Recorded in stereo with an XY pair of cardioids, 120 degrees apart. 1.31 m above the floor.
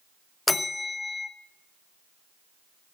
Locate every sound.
0.5 s a bell: 15° left, 1.1 m